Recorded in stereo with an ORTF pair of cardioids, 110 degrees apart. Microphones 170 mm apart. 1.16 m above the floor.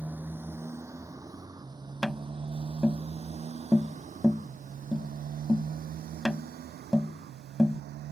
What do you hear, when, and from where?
0.0 s a motorcycle: 10° right; by 8.1 s 70° right
2.0 s tapping: straight ahead